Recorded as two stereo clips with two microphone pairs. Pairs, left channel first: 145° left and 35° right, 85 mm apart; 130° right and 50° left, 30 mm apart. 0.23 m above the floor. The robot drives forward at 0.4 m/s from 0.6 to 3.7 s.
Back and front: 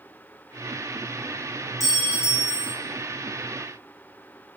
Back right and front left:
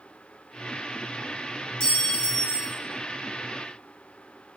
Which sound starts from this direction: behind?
A clink, at 1.8 s.